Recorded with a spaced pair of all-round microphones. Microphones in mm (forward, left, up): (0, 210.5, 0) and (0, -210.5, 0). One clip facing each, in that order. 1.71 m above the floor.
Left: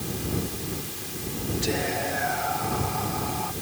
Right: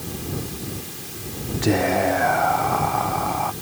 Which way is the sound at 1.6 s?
75° right (ahead or behind).